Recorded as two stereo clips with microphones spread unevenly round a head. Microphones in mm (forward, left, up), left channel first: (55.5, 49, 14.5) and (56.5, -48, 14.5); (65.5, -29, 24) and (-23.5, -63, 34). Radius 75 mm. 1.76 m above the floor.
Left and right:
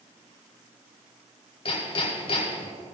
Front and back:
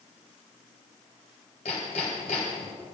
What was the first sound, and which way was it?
Hammering, 75° left.